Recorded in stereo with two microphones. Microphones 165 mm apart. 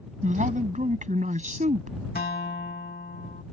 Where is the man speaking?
50° right (ahead or behind).